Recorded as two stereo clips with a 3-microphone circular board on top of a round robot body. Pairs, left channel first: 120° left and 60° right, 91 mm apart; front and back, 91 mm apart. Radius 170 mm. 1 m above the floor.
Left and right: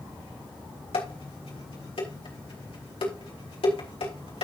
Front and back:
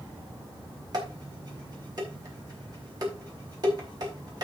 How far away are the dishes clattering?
About 4 m.